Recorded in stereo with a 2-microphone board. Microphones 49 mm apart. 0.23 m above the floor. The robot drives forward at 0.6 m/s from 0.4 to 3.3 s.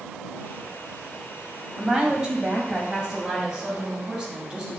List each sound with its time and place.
1.8 s a woman speaking: 15° right (ahead or behind), 1.4 m